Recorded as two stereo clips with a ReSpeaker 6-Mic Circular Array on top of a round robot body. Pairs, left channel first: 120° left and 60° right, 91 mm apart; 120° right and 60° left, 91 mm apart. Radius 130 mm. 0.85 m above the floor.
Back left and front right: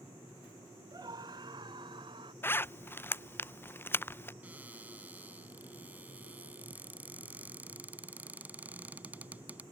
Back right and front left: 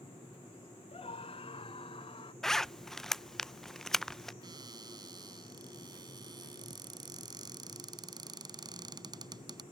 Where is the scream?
105° right; by 2.3 s 95° right.